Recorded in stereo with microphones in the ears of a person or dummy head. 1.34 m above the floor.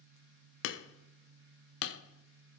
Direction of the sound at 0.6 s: 75° left (ahead or behind).